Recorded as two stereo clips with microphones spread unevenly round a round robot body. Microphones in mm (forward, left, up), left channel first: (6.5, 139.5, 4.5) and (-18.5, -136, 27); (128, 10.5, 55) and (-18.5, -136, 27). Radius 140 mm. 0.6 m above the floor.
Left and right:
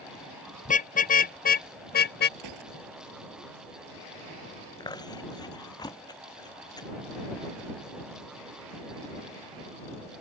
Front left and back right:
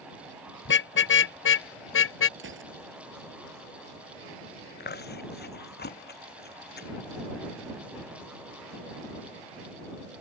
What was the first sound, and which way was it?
A car horn, 20° left.